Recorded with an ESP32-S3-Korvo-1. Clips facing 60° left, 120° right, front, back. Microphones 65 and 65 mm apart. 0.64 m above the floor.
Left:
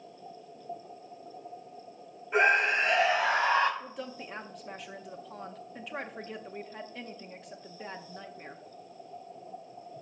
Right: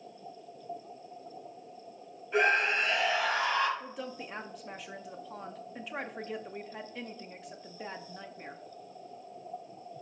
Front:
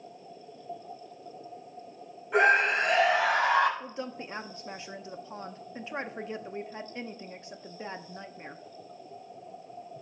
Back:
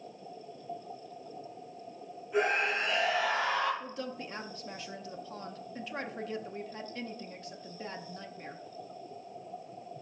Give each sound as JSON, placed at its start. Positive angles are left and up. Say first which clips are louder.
{"t": 2.3, "sound": "a scream", "louder": "left 2 dB, front 7 dB", "azimuth_deg": -5, "distance_m": 3.5}
{"t": 3.8, "sound": "a woman speaking", "louder": "even, front 1 dB", "azimuth_deg": -30, "distance_m": 0.6}